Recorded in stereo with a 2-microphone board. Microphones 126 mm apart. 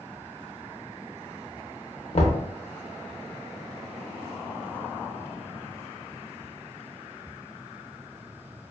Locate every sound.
2.1 s knocking: 55° left (ahead or behind), 0.5 m